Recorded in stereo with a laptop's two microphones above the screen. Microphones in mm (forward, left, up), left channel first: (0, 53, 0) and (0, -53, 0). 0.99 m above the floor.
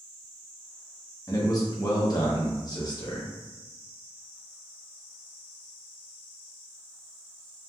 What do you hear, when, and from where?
1.3 s a man speaking: 40° left (ahead or behind), 0.8 m